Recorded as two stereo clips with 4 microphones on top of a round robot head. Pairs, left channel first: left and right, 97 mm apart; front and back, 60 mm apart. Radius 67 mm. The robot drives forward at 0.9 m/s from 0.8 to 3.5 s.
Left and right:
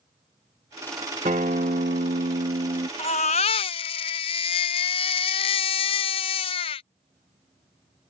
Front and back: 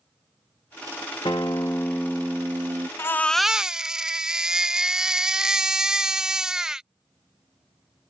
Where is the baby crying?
45° left; by 6.9 s 105° left.